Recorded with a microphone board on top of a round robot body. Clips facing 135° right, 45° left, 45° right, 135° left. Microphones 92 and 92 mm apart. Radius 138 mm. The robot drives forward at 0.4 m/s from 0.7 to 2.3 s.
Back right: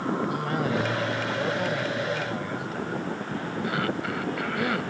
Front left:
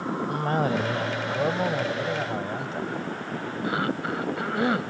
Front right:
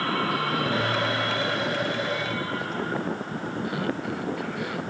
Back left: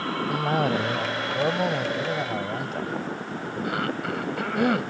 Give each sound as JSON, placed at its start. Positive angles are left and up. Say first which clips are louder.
{"t": 0.3, "sound": "a cough", "louder": "front left 2 dB, back left 2 dB", "azimuth_deg": 95}